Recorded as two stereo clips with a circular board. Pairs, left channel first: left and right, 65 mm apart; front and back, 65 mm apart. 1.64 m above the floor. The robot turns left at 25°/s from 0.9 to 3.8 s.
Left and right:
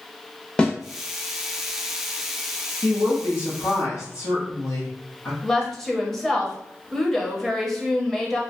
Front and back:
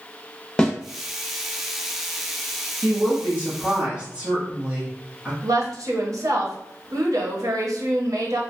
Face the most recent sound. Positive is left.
turn(degrees=170)